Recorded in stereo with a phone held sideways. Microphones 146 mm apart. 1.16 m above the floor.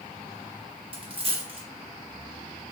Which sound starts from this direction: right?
A dropped coin, at 0.9 s.